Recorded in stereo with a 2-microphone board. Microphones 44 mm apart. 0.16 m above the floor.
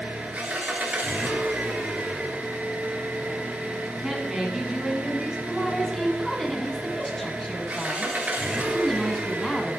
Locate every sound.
0.0 s an engine running: 35° right (ahead or behind), 1.3 m
4.0 s a woman speaking: 15° right (ahead or behind), 1.8 m
5.5 s a woman speaking: 10° left (ahead or behind), 1.2 m